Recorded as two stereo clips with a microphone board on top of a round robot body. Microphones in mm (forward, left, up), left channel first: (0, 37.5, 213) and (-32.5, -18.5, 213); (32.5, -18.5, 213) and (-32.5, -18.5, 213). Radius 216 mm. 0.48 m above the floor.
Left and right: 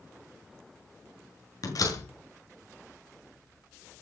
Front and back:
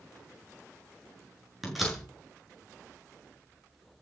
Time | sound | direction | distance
1.6 | a door slam | 90° left | 8 m